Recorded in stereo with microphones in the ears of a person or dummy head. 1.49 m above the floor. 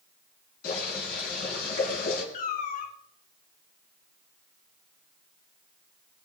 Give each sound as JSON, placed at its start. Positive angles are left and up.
{"t": 0.6, "sound": "boiling", "side_deg": 55, "distance_m": 6.0}
{"t": 2.3, "sound": "a cat meowing", "side_deg": 45, "distance_m": 2.0}